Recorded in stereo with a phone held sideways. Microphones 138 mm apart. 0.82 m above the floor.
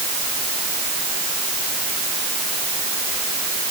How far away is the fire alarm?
I don't hear a fire alarm.